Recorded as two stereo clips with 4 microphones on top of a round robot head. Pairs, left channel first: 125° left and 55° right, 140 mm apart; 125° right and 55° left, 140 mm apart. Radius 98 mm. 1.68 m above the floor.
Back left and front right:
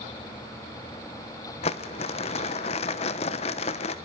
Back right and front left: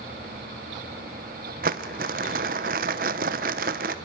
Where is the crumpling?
80° left, 1.0 m.